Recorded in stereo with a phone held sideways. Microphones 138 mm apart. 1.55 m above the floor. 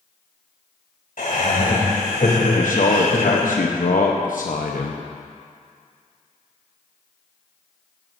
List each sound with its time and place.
1.2 s laughter: 80° left, 3 m
2.6 s a man speaking: 75° left (ahead or behind), 0.9 m